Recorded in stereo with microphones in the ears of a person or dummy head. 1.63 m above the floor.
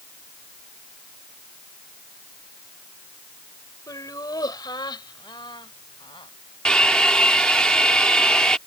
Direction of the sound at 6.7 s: Centre (ahead or behind).